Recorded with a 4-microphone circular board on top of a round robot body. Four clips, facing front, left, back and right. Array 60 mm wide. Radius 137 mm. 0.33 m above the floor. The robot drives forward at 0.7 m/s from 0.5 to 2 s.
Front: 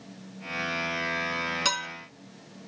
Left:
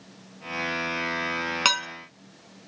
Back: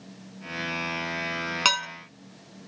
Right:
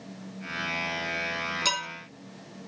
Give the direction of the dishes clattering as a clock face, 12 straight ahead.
8 o'clock.